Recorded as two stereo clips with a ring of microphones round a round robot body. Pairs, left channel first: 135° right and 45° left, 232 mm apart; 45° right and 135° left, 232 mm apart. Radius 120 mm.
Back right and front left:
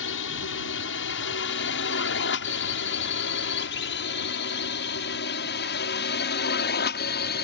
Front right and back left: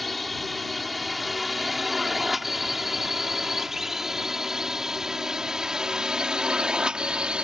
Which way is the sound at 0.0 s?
135° right.